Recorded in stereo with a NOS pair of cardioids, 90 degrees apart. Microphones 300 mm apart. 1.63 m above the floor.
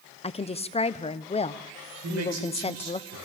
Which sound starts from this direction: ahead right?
A man speaking, at 2.0 s.